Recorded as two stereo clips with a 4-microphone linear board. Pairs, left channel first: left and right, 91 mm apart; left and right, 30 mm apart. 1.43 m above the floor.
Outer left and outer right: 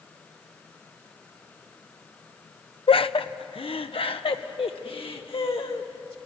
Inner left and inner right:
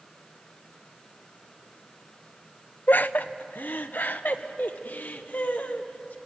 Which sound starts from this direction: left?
Laughter, at 2.9 s.